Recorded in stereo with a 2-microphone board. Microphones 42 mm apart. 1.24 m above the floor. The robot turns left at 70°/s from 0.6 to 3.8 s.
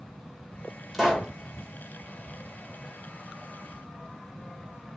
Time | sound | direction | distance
0.9 | a pop | centre (ahead or behind) | 2 m